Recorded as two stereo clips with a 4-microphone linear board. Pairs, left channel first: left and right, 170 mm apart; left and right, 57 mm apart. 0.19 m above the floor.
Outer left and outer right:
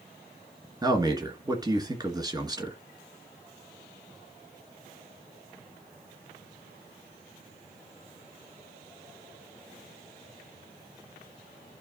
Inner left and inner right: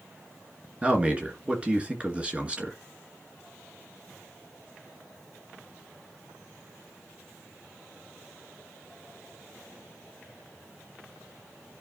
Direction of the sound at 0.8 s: 25° right (ahead or behind).